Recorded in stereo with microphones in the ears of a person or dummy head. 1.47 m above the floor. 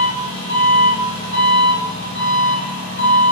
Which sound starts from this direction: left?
An engine running, at 0.0 s.